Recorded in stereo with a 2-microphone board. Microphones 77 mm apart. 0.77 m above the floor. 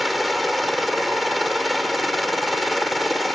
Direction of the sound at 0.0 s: Centre (ahead or behind).